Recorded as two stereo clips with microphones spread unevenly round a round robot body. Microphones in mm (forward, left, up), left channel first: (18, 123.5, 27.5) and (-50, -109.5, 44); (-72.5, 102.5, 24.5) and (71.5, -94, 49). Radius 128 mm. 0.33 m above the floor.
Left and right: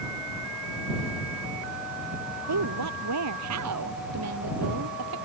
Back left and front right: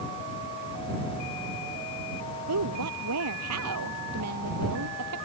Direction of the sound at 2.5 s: 80° right.